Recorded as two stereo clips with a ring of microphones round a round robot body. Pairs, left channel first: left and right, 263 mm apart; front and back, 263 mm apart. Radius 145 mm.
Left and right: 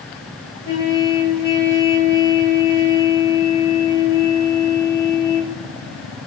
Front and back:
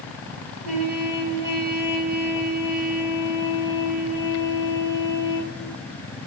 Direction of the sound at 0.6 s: 150° left.